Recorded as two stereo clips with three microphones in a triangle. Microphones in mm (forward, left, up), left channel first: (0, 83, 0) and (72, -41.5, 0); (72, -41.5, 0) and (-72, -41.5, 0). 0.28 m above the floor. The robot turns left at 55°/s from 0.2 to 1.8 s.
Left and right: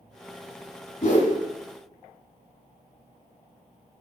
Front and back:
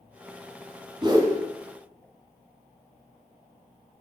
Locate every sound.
1.0 s a whoosh: 130° left, 1.2 m; by 1.4 s 110° left, 1.2 m